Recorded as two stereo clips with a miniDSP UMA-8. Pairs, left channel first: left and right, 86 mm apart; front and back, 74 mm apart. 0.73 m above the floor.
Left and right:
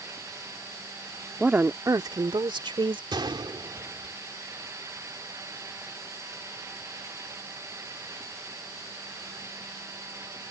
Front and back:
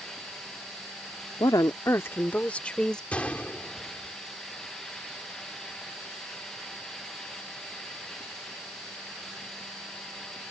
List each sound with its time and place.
1.4 s a woman speaking: 15° right; by 3.0 s 80° right
3.1 s a gunshot: 70° right